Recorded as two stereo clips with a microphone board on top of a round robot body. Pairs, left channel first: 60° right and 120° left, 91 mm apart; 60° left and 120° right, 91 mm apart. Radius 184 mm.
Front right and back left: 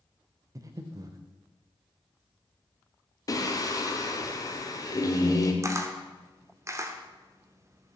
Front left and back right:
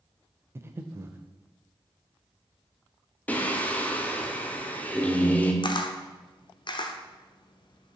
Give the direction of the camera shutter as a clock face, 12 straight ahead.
10 o'clock.